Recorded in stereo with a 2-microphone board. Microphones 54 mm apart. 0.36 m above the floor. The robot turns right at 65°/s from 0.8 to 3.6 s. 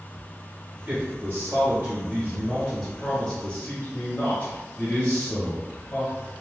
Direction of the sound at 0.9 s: 120° right.